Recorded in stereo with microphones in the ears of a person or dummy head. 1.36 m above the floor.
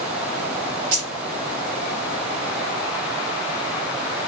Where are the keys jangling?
30° right (ahead or behind), 0.9 m.